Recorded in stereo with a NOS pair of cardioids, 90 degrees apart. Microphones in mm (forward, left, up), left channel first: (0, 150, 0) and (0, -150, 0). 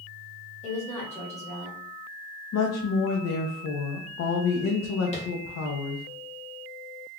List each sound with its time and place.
0.6 s a woman speaking: 20° left, 1.5 m
2.5 s a woman speaking: 60° left, 0.6 m
5.1 s tapping: 25° left, 0.9 m